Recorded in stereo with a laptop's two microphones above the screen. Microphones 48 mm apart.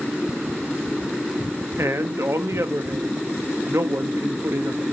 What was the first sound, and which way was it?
A man speaking, 80° right.